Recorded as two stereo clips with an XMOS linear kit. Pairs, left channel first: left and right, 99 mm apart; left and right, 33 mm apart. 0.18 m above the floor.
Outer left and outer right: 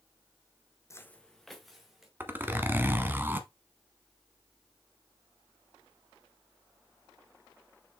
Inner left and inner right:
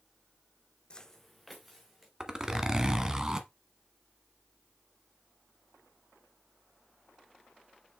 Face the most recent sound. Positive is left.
turn(degrees=-20)  # may be behind; listen again after turning